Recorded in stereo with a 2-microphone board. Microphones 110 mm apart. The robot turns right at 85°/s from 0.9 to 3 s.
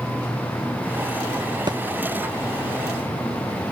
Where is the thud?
40° right (ahead or behind); by 1.8 s 30° right (ahead or behind).